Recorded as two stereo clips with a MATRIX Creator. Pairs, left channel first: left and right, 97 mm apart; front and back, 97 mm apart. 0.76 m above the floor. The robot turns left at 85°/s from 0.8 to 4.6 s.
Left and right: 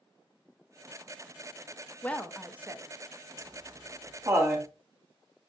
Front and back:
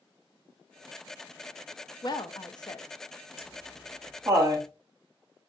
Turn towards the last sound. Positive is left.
turn(degrees=-155)